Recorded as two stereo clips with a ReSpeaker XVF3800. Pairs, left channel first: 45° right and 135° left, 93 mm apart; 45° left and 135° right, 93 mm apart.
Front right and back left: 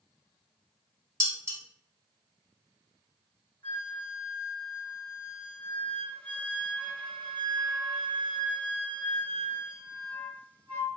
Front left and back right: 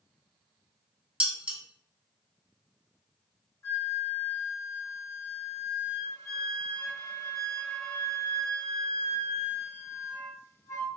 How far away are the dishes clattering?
About 1.1 m.